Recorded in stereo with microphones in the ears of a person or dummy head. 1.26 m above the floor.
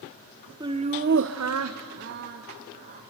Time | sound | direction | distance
0.6 | laughter | 15° right (ahead or behind) | 0.9 m